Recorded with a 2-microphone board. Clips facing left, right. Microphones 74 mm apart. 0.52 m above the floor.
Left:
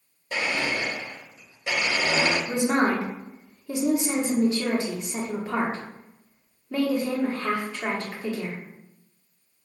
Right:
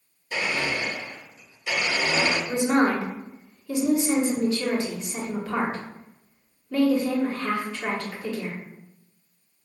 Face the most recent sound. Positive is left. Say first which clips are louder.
# right 4 dB
turn(degrees=25)  # may be behind; listen again after turning